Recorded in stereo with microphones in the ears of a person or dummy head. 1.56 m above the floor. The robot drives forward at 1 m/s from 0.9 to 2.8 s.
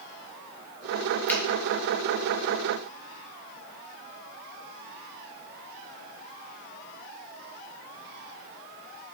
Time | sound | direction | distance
1.3 | a finger snap | 5° left (ahead or behind) | 1.3 m